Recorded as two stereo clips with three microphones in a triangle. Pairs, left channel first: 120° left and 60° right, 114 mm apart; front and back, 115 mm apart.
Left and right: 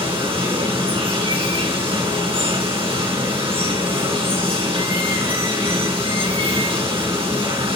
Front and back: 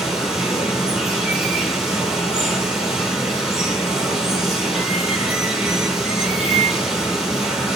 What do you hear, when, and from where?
0.0 s running water: 95° right, 3.5 m